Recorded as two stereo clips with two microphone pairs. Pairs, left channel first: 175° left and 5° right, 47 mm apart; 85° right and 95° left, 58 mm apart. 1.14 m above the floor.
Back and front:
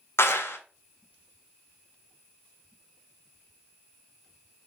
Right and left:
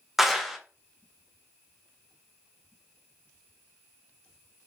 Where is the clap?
175° right, 0.5 m.